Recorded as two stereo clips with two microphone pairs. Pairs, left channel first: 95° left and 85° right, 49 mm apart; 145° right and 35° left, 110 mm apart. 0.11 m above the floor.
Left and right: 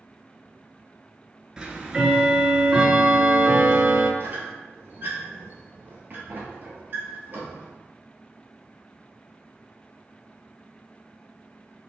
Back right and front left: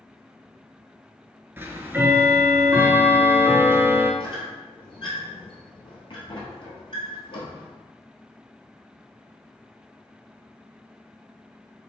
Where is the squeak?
125° right, 1.1 m.